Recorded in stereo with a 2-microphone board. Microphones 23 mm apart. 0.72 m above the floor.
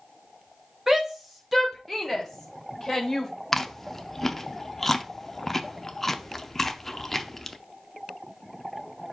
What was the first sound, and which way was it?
A shout, 20° right (ahead or behind).